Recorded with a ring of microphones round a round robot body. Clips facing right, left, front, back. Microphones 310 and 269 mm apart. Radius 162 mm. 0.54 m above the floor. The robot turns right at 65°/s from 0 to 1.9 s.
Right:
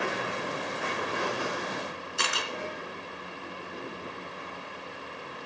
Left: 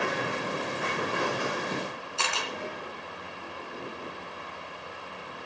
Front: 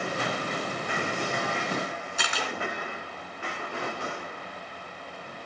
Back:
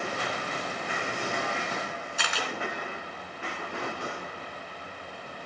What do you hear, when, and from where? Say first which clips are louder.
2.2 s a camera shutter: even, front 1 dB; 20° right, 3 m